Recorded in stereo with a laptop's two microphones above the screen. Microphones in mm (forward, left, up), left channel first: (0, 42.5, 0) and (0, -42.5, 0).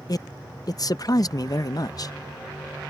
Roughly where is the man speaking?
Left.